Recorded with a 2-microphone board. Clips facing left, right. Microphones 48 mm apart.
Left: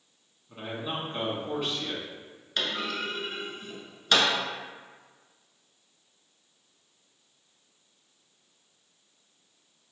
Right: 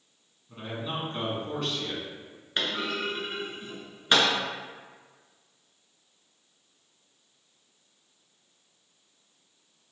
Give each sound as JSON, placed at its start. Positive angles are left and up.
{"t": 0.5, "sound": "a man speaking", "side_deg": 10, "distance_m": 1.0}
{"t": 2.6, "sound": "a clunk", "side_deg": -25, "distance_m": 0.8}